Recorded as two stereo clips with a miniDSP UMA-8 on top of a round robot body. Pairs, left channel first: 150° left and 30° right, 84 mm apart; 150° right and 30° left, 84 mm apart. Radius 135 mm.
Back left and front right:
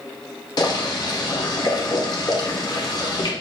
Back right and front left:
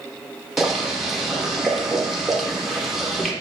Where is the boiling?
115° left, 1.0 m.